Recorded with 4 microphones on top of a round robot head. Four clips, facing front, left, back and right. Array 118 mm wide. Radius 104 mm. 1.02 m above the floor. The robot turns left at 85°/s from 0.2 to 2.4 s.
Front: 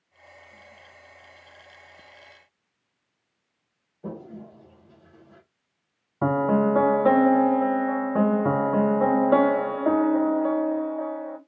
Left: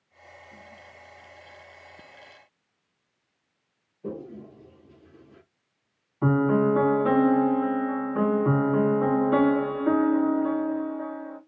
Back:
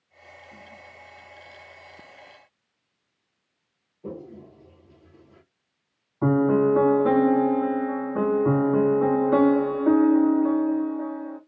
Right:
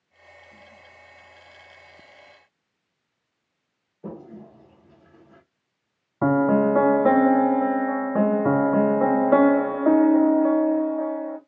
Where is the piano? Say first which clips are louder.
Right 3 dB, back 2 dB; 60° right, 1.4 m.